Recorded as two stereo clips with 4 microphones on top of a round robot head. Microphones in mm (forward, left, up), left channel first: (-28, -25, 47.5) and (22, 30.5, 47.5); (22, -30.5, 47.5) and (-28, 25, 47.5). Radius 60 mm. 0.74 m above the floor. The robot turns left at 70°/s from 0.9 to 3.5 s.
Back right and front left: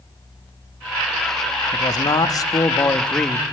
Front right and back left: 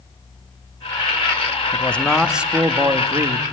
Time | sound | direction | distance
1.7 | a man speaking | 105° right | 1.3 m